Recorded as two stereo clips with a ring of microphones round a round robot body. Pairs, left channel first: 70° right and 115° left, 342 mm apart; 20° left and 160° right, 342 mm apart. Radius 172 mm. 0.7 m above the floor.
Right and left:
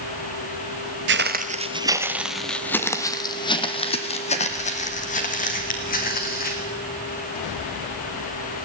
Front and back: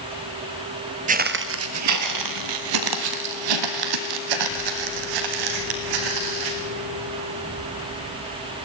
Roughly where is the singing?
I don't hear singing.